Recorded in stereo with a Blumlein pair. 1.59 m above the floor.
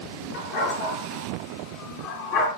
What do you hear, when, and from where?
0.3 s a dog barking: 50° left, 7 m; by 2.5 s 45° left, 5.5 m